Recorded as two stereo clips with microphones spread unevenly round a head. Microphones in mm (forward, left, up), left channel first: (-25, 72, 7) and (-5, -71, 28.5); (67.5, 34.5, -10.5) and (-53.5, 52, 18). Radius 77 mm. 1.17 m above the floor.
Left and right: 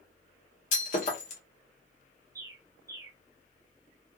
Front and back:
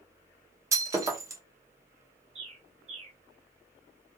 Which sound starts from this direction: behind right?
A bird, at 2.4 s.